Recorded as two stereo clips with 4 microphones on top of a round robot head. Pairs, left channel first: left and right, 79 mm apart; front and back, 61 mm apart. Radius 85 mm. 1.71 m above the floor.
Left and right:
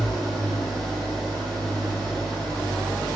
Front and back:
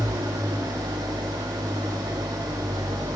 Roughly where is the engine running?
Behind.